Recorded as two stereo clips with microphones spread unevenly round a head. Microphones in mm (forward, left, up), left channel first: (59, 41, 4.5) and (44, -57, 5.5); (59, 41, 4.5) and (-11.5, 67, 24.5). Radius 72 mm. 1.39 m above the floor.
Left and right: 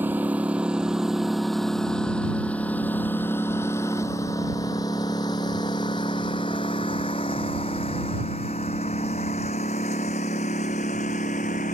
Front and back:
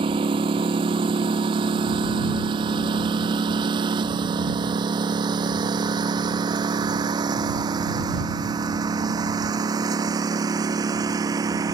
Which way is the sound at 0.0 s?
175° right.